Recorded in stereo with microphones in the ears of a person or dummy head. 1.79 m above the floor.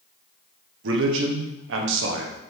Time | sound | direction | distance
0.8 | a man speaking | 75° right (ahead or behind) | 1.2 m